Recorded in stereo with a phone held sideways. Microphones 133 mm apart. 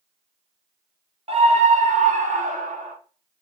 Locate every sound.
1.3 s a scream: 45° right (ahead or behind), 1.1 m; by 3.0 s 70° right (ahead or behind), 2.5 m